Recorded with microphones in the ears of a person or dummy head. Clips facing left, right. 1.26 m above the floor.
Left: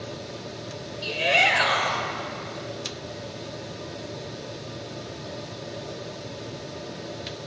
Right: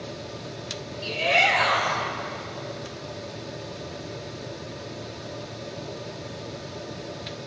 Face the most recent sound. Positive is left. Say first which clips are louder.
# even
turn(degrees=20)  # may be behind; listen again after turning